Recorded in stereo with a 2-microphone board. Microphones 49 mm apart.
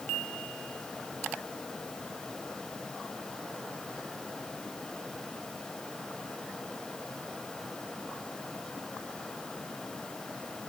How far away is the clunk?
I don't hear a clunk.